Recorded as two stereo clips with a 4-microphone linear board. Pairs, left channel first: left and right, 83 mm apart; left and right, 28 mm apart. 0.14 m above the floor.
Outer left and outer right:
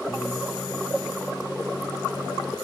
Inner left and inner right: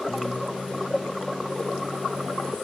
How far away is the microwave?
About 3.5 m.